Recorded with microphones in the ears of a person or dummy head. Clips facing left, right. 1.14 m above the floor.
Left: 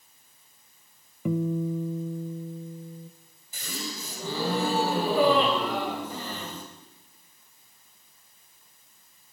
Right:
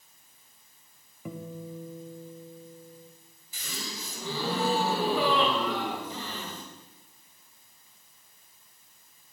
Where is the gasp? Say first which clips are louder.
Left 4 dB; 40° left (ahead or behind), 3 m.